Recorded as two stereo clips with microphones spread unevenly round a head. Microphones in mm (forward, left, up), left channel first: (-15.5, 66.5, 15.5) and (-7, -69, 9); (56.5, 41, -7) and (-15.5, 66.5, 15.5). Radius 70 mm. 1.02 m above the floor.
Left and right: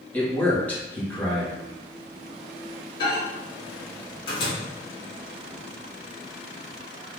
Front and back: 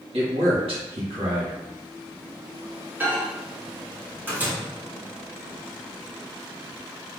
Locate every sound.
0.1 s a man speaking: 170° left, 1.6 m
3.0 s a microwave: 85° left, 1.7 m